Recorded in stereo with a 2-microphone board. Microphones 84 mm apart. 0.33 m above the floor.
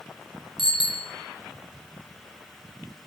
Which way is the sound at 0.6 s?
70° left (ahead or behind).